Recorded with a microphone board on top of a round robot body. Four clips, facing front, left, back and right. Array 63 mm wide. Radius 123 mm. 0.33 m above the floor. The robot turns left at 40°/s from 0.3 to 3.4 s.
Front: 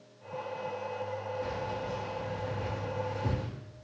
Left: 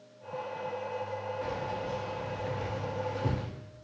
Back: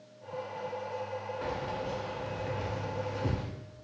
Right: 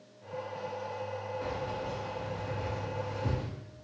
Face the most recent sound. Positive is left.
turn(degrees=110)